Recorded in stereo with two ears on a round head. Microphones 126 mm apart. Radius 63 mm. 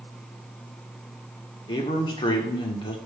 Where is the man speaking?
35° left (ahead or behind), 1.2 m.